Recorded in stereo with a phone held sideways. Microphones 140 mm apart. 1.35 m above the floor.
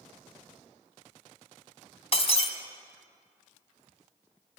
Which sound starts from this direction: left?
Breaking glass, at 2.1 s.